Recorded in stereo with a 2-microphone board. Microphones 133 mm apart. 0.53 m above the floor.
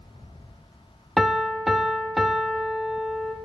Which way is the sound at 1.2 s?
Centre (ahead or behind).